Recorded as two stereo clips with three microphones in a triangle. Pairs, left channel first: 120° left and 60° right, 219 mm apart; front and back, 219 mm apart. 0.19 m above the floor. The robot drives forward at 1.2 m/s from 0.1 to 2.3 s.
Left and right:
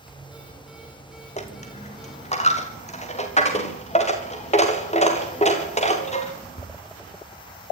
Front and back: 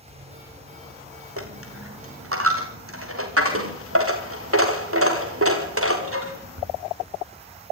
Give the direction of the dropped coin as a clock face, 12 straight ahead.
6 o'clock.